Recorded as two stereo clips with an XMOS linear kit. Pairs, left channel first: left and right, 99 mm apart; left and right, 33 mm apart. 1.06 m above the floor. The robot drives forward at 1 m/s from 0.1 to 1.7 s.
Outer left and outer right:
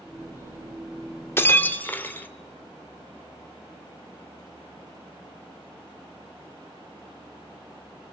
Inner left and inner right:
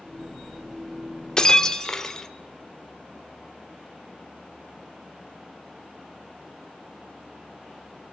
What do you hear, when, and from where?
1.4 s breaking glass: 25° left (ahead or behind), 1.2 m; by 2.3 s 20° left (ahead or behind), 1.5 m